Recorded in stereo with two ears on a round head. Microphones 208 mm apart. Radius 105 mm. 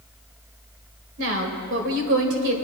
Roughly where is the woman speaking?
Right.